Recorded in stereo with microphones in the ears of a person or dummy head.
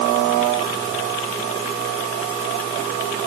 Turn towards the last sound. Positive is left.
No sound to turn to.